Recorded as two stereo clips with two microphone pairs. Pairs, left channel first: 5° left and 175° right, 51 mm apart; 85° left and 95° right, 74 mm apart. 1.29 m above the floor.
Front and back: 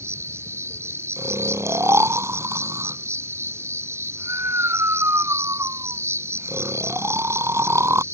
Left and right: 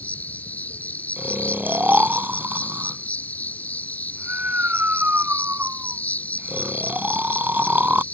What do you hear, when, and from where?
0.0 s an insect: 155° left
1.2 s snoring: 160° right